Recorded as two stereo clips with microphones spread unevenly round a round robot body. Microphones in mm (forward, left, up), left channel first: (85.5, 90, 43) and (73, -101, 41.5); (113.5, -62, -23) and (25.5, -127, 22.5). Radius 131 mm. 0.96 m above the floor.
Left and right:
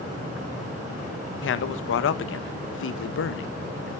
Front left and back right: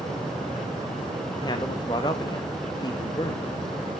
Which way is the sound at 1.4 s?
90° left.